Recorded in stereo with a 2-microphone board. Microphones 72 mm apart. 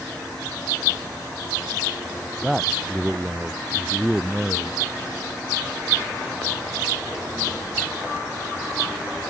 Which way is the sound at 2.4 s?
5° right (ahead or behind).